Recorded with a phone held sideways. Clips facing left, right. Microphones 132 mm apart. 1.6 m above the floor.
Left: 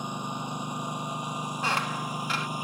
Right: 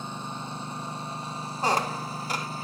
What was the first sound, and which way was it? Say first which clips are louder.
A lawn mower: left 2 dB; 15° left (ahead or behind).